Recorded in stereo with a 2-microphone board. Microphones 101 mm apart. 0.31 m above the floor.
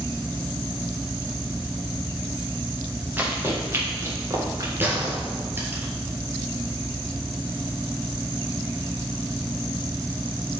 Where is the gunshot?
20° right (ahead or behind), 3 m.